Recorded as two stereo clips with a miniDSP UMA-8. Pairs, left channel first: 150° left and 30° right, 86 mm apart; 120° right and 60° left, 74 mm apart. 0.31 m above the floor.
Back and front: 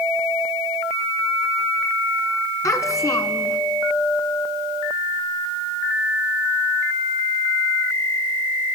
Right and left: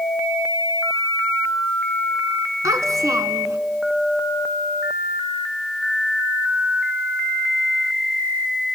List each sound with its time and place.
2.6 s a child speaking: 100° left, 2 m